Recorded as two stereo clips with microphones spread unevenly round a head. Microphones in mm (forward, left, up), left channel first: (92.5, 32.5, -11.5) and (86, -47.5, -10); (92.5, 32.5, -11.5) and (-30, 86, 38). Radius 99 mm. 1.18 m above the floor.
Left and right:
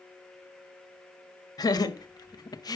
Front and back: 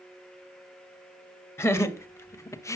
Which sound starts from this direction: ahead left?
Laughter, at 1.6 s.